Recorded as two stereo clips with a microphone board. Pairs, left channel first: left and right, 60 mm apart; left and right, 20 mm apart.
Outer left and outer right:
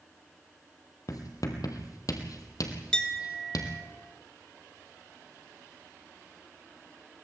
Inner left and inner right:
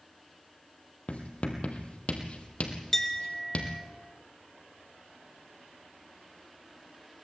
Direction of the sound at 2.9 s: 15° left (ahead or behind).